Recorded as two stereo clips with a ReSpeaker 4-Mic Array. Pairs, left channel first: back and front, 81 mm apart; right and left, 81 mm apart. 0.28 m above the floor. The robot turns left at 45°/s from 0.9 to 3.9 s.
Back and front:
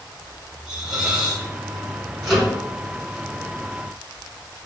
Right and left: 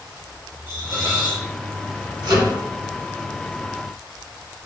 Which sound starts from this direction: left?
A microwave, at 2.2 s.